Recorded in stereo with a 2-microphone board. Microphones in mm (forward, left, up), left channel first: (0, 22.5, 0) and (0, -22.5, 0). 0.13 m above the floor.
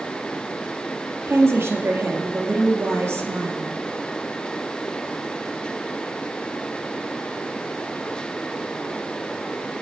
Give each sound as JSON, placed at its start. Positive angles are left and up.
{"t": 1.3, "sound": "a woman speaking", "side_deg": -65, "distance_m": 2.5}